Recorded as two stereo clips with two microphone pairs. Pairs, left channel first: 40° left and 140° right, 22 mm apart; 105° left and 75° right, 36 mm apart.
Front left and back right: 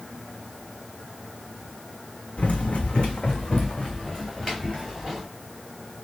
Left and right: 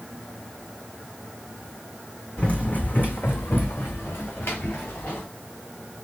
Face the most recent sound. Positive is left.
turn(degrees=125)